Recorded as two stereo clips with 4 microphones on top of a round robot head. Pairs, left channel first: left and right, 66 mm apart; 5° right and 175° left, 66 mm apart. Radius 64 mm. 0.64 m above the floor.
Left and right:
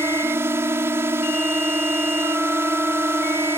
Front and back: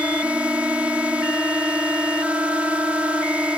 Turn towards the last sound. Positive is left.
turn(degrees=-120)